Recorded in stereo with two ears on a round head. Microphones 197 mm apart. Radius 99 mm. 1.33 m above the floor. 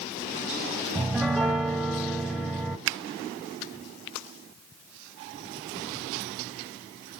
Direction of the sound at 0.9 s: Centre (ahead or behind).